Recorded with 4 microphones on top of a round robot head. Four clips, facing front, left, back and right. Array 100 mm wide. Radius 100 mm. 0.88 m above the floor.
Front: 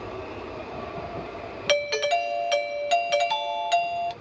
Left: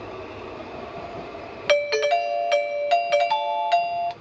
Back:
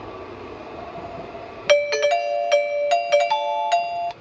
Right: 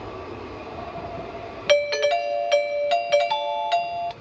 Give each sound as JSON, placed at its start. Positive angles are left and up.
{"t": 1.7, "sound": "a doorbell", "azimuth_deg": 160, "distance_m": 0.8}